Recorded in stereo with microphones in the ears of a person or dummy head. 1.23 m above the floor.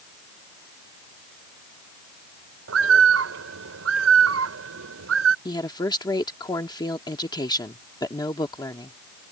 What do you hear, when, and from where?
2.7 s a bird: 85° right
5.5 s a woman speaking: 30° left (ahead or behind)